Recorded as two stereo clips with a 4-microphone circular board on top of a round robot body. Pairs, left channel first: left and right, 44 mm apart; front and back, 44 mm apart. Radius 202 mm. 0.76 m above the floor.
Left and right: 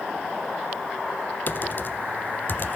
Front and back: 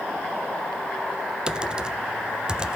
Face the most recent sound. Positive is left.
turn(degrees=115)